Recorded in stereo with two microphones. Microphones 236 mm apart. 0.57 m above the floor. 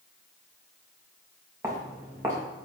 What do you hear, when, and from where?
1.6 s footsteps: 10° right (ahead or behind), 3.5 m